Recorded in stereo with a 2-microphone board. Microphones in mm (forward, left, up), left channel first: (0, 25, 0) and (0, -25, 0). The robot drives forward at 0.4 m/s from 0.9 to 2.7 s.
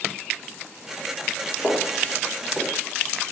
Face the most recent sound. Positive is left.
turn(degrees=25)  # may be behind; listen again after turning